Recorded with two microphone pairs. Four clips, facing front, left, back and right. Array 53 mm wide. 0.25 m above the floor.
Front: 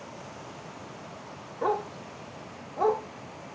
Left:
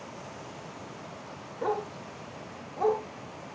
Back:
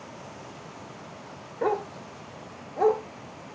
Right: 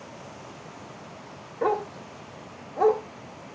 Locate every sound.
1.6 s a dog barking: 140° right, 1.2 m